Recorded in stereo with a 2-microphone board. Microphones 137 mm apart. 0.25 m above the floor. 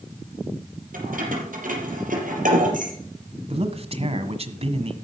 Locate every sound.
0.9 s keys jangling: 80° right, 5.5 m
3.5 s a man speaking: 45° right (ahead or behind), 1.5 m